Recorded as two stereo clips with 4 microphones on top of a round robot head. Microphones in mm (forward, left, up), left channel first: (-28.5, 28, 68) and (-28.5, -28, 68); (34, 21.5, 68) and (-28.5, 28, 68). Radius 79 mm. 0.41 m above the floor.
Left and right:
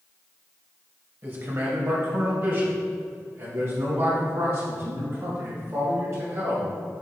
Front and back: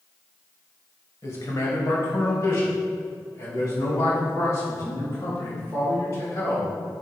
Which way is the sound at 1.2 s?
40° right.